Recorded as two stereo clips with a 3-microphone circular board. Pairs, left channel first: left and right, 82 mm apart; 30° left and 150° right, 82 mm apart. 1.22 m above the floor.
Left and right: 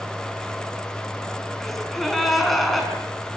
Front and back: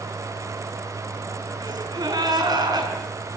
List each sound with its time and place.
1.6 s a gasp: straight behind, 4.5 m